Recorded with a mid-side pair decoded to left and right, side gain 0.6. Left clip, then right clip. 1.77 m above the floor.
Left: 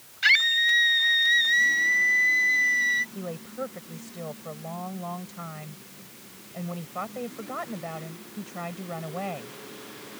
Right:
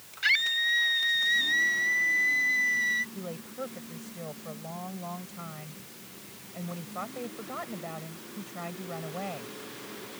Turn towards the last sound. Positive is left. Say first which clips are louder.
# left 3 dB
turn(degrees=20)